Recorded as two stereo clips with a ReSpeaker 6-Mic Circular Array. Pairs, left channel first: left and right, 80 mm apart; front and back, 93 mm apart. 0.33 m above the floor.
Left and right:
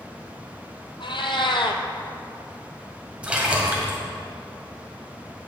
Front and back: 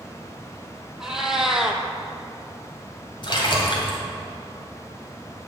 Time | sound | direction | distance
1.0 | a cat meowing | 95° left | 0.9 m
3.2 | a splash | 15° right | 1.8 m